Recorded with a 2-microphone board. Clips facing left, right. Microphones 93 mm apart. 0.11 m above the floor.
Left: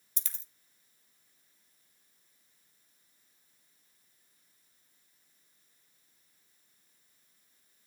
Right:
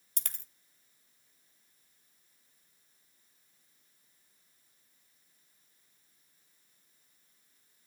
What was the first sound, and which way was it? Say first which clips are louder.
A dropped coin: right 4 dB; 60° right (ahead or behind).